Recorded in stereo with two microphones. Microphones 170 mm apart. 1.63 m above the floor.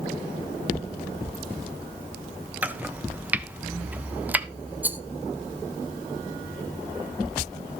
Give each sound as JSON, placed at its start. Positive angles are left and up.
{"t": 2.6, "sound": "chopping", "side_deg": -10, "distance_m": 0.6}
{"t": 4.8, "sound": "a rattle", "side_deg": -10, "distance_m": 0.7}